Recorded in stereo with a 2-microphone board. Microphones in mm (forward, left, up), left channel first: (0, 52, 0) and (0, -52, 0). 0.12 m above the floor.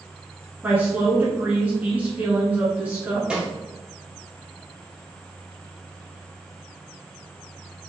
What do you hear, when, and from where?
0.6 s a woman speaking: 15° right (ahead or behind), 1.2 m
3.3 s a snare drum: 10° right (ahead or behind), 1.6 m